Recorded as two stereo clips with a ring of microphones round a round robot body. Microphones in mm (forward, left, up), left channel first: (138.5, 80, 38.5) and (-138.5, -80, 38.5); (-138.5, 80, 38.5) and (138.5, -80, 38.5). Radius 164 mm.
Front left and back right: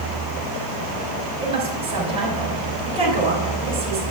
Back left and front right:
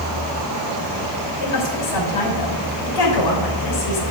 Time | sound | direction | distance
1.4 | a woman speaking | 135° left | 3 m